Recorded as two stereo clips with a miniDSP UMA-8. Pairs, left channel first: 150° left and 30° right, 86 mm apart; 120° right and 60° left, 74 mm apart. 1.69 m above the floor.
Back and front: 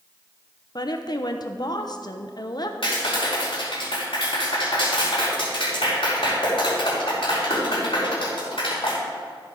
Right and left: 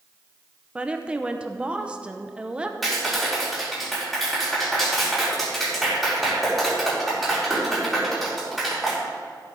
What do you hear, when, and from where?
0.8 s a woman speaking: 130° left, 0.8 m
2.8 s a clap: 150° left, 4.5 m